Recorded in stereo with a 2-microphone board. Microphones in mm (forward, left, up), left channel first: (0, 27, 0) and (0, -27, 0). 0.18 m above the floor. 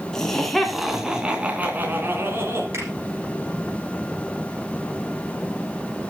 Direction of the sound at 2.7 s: 55° right (ahead or behind).